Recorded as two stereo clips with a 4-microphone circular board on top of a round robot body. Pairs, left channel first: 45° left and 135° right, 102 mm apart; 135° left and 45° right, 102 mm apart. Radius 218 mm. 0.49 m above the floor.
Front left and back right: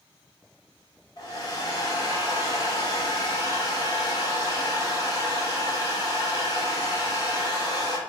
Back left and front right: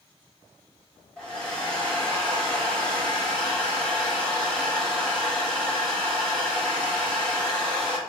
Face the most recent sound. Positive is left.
turn(degrees=60)